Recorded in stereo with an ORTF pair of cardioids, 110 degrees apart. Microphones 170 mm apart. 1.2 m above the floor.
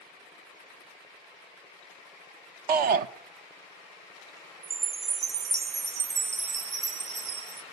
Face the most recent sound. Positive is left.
turn(degrees=-40)